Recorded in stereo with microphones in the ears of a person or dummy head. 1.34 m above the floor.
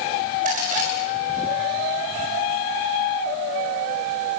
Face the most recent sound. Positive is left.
turn(degrees=-40)  # may be behind; listen again after turning